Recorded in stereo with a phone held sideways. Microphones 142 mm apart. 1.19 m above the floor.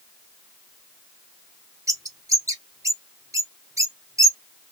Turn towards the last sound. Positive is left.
turn(degrees=-25)  # may be behind; listen again after turning